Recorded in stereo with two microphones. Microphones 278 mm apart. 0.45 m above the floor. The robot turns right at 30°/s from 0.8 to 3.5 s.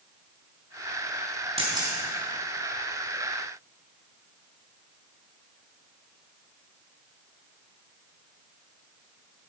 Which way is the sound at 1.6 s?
20° right (ahead or behind).